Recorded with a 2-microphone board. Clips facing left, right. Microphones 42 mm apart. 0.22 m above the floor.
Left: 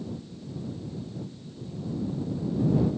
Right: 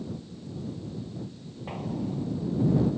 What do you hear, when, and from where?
1.7 s an explosion: 75° right (ahead or behind)